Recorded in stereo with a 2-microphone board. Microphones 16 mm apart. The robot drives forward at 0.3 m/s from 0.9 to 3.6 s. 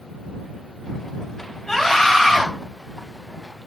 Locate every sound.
1.7 s a scream: 40° left (ahead or behind), 4 m